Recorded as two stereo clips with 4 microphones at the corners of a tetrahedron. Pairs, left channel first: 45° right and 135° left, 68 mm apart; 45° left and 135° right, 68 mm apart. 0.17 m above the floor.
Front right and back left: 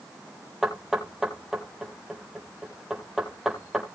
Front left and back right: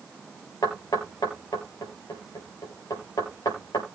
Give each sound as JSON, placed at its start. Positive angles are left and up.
{"t": 0.6, "sound": "knocking", "azimuth_deg": 50, "distance_m": 4.0}